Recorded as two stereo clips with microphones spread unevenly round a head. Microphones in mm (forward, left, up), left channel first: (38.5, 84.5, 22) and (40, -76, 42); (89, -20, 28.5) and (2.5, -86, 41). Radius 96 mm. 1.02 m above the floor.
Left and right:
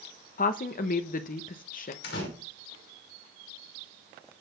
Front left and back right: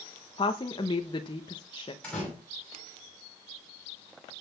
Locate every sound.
0.4 s a woman speaking: 75° left, 1.0 m
2.0 s a door slam: 120° left, 6 m